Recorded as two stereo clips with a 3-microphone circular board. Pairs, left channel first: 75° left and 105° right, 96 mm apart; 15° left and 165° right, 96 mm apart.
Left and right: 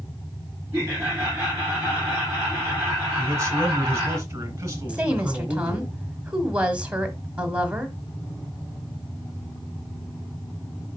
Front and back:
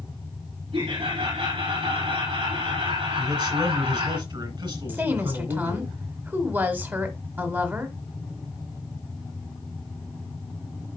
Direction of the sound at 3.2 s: 155° right.